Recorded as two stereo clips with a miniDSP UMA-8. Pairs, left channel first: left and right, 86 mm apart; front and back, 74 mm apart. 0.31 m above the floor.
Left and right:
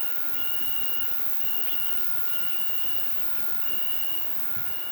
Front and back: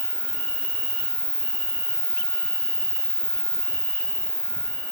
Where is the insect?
100° left, 1.4 m.